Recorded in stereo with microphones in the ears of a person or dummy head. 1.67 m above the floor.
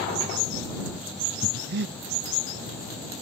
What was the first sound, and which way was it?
Breathing, 55° right (ahead or behind).